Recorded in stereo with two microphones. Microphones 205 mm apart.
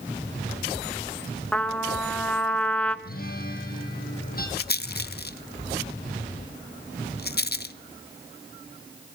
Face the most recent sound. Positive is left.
turn(degrees=50)  # may be behind; listen again after turning